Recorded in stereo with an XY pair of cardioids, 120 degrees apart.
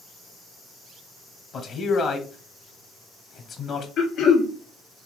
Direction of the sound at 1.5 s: 60° left.